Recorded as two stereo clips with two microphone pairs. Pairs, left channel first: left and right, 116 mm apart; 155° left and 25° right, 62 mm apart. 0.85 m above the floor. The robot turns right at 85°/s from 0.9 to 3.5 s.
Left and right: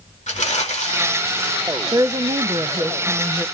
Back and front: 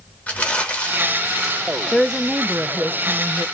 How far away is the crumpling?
About 2.0 m.